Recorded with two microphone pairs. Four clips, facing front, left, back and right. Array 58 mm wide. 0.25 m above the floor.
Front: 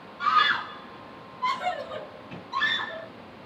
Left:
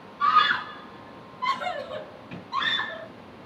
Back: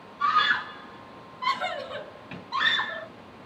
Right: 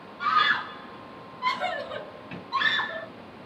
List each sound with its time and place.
0.2 s a scream: 10° left, 1.2 m; by 3.1 s 150° right, 1.8 m